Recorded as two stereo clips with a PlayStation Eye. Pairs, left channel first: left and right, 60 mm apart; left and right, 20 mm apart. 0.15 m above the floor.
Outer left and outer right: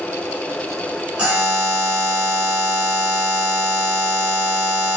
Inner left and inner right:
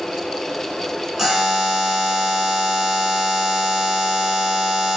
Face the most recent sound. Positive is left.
turn(degrees=-20)  # may be behind; listen again after turning